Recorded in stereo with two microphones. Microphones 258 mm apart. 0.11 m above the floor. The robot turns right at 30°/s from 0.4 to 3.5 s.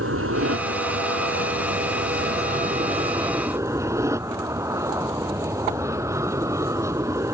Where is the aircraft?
105° right; by 7.3 s 15° right.